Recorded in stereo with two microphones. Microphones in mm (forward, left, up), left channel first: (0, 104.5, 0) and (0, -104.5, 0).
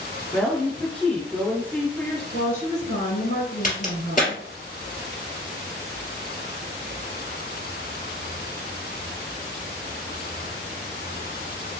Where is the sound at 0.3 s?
5° left (ahead or behind), 1.6 m.